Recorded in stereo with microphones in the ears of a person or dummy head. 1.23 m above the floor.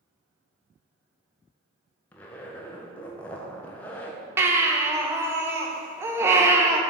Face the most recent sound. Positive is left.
turn(degrees=-15)  # may be behind; listen again after turning